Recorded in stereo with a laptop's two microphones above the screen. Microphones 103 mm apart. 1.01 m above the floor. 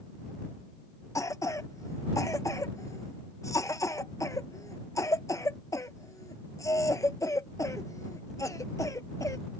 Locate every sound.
1.1 s a cough: 30° left (ahead or behind)